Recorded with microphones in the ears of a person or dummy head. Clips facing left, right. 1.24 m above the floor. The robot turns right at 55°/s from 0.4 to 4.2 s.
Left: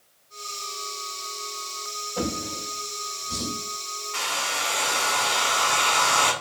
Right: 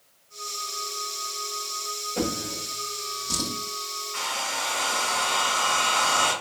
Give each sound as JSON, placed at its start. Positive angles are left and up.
{"t": 2.2, "sound": "a drawer", "side_deg": -25, "distance_m": 1.8}
{"t": 4.1, "sound": "a hair dryer", "side_deg": 65, "distance_m": 1.6}